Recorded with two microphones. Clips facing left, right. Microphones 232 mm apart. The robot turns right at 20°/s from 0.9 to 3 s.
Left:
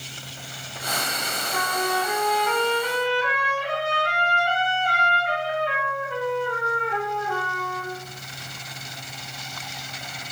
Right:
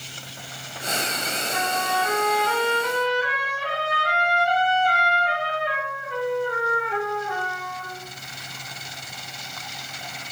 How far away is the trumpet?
About 1.7 m.